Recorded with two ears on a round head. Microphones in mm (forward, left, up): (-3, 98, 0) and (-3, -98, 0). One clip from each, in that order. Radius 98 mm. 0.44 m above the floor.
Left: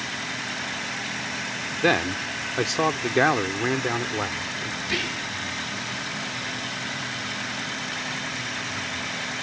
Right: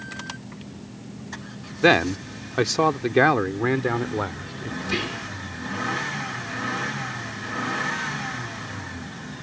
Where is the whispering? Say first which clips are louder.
Right 1 dB; 25° left (ahead or behind).